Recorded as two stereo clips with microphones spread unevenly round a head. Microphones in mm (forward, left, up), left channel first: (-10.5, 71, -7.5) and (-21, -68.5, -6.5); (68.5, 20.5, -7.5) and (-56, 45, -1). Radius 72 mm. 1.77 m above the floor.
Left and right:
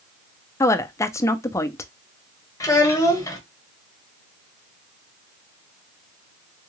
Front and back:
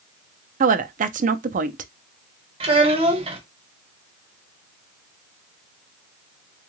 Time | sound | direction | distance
0.6 | a woman speaking | 155° left | 0.5 m
2.6 | a child speaking | 145° left | 1.2 m